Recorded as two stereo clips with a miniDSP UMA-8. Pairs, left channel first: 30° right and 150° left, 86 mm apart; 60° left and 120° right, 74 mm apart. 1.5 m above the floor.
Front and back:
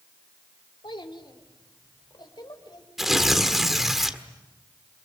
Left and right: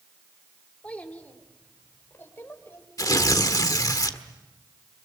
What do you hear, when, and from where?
0.8 s a child speaking: 10° right, 3 m; by 2.9 s 5° left, 5 m
3.0 s tearing paper: 65° left, 1.6 m